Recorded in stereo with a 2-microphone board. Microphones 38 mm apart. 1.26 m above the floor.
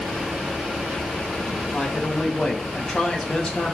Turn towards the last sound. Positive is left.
turn(degrees=20)  # may be behind; listen again after turning